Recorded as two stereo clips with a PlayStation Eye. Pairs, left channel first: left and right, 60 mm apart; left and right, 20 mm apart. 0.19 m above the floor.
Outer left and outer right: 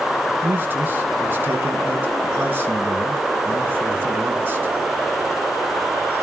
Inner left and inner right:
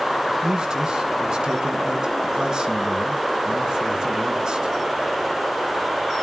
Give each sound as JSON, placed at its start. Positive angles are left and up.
{"t": 0.4, "sound": "a man speaking", "side_deg": -30, "distance_m": 2.0}